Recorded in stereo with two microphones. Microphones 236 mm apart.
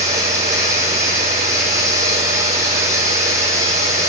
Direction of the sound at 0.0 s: 15° right (ahead or behind).